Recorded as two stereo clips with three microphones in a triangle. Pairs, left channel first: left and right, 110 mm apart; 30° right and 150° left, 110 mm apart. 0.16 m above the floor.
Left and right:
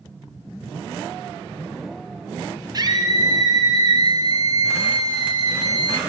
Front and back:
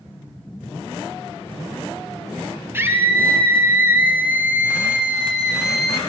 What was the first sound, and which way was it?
A scream, 140° right.